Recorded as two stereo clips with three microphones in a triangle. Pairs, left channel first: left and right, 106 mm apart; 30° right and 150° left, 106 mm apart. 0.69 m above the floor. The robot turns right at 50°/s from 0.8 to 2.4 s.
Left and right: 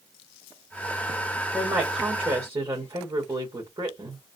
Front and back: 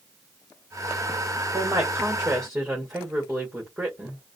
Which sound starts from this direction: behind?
A woman speaking, at 1.5 s.